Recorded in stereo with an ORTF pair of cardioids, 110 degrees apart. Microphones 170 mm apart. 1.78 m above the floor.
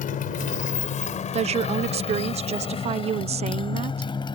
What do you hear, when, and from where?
0.0 s a motorcycle: 60° left; by 4.4 s 30° left
1.3 s a woman speaking: 40° right